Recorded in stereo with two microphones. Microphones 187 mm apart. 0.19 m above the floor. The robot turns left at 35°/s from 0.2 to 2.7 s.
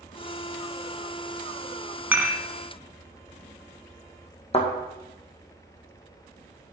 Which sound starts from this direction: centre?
Dishes clattering, at 2.1 s.